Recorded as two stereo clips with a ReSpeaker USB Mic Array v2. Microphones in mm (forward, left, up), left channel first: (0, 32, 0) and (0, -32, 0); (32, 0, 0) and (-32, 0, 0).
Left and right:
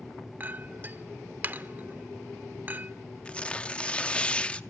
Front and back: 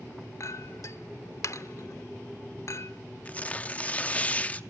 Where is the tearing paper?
40° left, 0.7 m.